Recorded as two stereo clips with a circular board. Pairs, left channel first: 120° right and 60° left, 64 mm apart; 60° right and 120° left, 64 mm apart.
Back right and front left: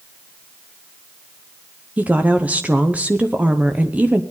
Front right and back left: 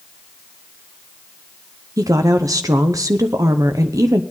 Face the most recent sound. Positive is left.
turn(degrees=125)